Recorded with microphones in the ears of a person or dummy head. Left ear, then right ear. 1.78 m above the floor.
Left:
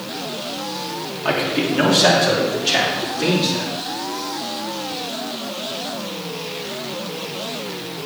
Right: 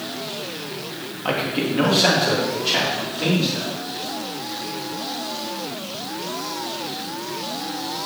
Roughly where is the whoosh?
No whoosh in this recording.